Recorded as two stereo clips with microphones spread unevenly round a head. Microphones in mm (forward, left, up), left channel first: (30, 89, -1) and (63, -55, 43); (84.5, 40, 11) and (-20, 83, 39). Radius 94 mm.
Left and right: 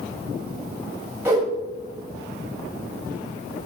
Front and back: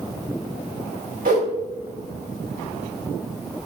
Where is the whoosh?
155° right, 2.5 m.